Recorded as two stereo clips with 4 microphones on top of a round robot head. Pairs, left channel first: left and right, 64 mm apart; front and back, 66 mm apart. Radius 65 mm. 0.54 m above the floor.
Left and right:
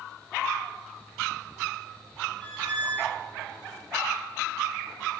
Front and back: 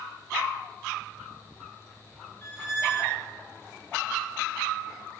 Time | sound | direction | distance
2.4 | a squeak | 25° left | 0.6 m